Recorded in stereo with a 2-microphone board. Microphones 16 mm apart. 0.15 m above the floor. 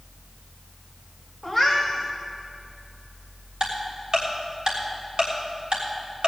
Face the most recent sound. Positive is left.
turn(degrees=-50)  # may be behind; listen again after turning